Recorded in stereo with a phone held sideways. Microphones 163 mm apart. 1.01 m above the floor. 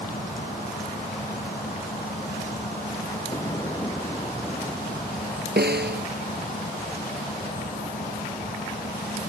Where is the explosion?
20° left (ahead or behind).